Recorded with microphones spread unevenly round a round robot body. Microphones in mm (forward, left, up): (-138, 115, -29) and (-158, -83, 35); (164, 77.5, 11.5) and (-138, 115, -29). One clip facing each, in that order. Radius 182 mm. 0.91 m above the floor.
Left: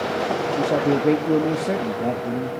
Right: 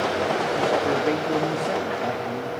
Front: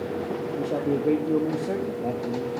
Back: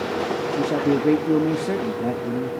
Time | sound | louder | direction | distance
0.6 | a man speaking | left 5 dB, back 5 dB | 125° left | 1.1 m